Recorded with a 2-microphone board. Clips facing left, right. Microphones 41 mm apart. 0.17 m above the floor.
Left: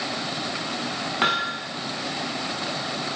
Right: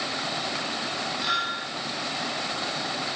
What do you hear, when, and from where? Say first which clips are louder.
1.2 s hammering: left 5 dB; 50° left (ahead or behind), 10 m